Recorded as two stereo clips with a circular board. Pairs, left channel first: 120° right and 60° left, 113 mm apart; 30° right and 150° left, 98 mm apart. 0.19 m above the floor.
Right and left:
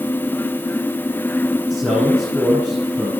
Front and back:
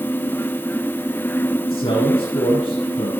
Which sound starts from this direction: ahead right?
A man speaking, at 1.7 s.